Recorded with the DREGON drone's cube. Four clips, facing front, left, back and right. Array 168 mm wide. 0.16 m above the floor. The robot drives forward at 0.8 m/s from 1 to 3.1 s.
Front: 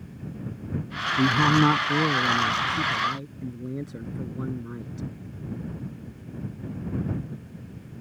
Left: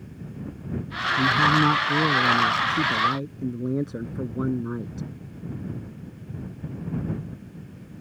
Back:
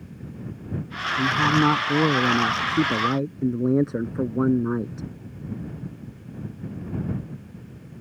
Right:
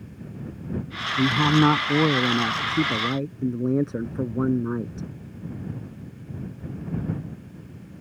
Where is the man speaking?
50° right; by 5.1 s 165° right.